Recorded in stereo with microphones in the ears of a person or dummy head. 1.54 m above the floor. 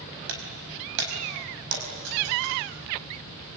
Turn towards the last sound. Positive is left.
turn(degrees=-75)  # may be behind; listen again after turning